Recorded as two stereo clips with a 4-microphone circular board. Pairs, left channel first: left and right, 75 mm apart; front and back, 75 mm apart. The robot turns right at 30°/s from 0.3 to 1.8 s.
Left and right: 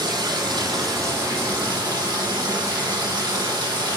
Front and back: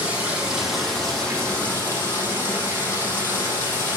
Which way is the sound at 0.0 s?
105° right.